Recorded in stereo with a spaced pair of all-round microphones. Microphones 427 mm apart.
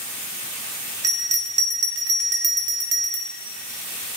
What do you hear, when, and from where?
1.0 s a bell: 40° right (ahead or behind), 0.6 m